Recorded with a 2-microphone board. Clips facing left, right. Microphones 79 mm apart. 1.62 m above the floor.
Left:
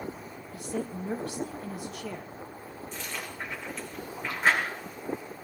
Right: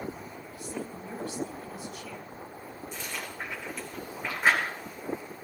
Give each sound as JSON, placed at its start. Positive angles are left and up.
{"t": 0.5, "sound": "a woman speaking", "side_deg": 65, "distance_m": 1.8}
{"t": 2.9, "sound": "chewing", "side_deg": -10, "distance_m": 6.0}